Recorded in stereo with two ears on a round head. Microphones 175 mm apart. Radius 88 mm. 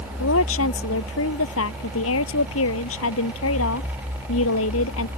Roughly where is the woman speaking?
Left.